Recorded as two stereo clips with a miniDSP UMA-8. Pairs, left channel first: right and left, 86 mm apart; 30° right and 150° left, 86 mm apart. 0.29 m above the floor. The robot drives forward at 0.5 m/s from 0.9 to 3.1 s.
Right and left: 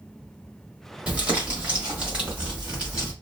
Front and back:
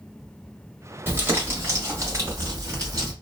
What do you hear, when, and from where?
1.1 s crumpling: 140° left, 1.5 m; by 3.1 s 165° left, 2 m